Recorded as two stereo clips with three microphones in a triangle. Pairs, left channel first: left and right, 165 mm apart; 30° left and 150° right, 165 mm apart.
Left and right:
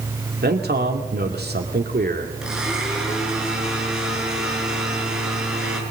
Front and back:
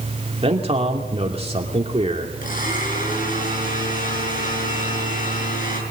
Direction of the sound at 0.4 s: 95° right.